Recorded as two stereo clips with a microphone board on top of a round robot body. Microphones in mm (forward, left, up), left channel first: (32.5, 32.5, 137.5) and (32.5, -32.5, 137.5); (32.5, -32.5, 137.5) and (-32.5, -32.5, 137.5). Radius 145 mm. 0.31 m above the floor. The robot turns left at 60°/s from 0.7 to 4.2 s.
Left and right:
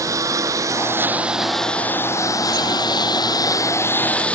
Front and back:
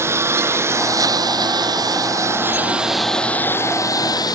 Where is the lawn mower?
130° right; by 4.4 s 20° left.